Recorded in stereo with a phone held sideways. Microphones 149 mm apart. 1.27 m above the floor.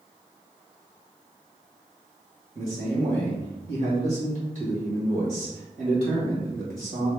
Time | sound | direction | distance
2.5 | a man speaking | 55° right (ahead or behind) | 1.4 m